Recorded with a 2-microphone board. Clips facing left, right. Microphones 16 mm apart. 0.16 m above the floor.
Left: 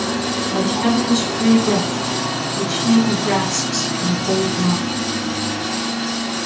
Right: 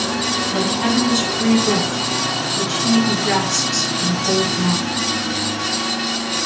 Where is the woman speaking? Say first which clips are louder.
Left 3 dB; 30° right (ahead or behind), 2.5 m.